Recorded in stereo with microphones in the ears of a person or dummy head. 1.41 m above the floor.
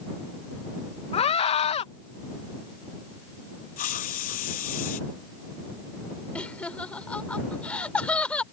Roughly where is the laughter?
Centre.